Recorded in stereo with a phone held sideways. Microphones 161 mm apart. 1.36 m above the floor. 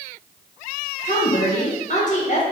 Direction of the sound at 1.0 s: 50° left (ahead or behind).